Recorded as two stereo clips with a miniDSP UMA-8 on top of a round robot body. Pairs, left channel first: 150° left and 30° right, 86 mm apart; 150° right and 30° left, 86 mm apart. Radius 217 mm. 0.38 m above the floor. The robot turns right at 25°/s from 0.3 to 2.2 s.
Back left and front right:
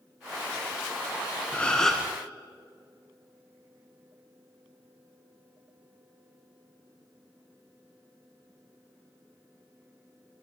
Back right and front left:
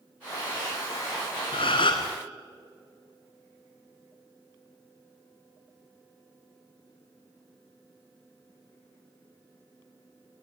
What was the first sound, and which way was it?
A gasp, 135° right.